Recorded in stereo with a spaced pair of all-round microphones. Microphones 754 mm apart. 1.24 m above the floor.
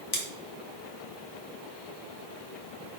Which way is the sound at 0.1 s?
35° left (ahead or behind).